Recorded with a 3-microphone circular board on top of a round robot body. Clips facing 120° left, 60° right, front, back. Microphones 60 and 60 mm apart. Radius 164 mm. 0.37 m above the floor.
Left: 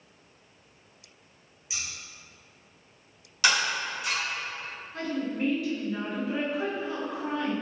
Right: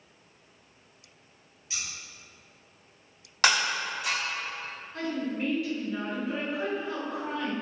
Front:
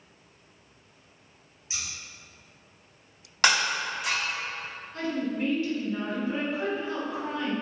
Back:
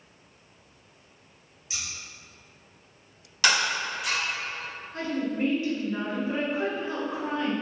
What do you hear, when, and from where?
1.7 s scissors: 50° left, 1.3 m
3.4 s breaking glass: 30° right, 1.5 m
4.9 s a woman speaking: 155° right, 1.2 m